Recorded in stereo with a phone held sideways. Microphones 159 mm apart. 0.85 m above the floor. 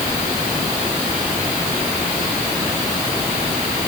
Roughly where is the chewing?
I don't hear chewing.